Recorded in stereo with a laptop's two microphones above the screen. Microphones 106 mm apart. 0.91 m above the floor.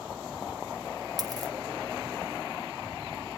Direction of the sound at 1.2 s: 40° right (ahead or behind).